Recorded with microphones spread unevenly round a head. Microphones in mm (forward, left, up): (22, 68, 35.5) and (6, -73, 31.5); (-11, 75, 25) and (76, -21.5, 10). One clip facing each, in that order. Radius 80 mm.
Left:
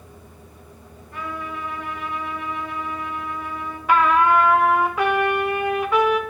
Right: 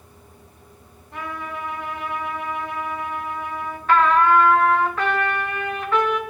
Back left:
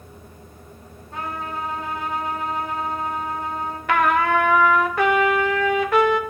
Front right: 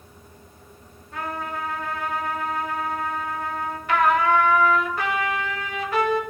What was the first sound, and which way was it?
A trumpet, 165° right.